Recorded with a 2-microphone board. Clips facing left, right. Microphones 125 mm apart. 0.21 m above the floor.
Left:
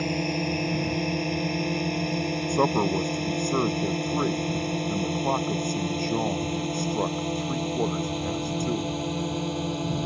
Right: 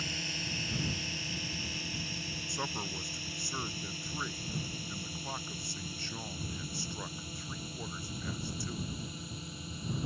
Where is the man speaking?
60° left (ahead or behind).